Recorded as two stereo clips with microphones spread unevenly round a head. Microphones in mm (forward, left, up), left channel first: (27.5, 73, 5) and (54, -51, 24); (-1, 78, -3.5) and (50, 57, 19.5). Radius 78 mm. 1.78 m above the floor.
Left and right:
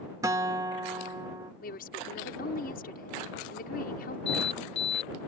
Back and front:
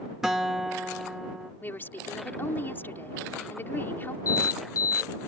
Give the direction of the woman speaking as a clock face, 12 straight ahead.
9 o'clock.